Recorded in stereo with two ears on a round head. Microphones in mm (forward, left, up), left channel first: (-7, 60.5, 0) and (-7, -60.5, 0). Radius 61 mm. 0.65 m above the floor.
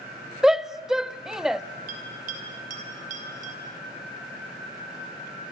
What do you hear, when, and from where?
0.4 s a shout: 5° right (ahead or behind), 0.6 m
1.9 s a bell: 60° right (ahead or behind), 4.5 m